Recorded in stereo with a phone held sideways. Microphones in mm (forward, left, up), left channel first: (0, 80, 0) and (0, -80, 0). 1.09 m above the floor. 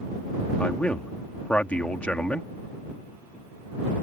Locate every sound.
0.6 s a man speaking: 10° left (ahead or behind)